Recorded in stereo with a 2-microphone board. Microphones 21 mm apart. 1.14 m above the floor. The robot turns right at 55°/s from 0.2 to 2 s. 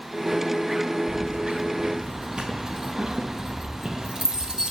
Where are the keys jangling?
50° right (ahead or behind), 0.5 m; by 4.7 s 30° right (ahead or behind), 0.5 m.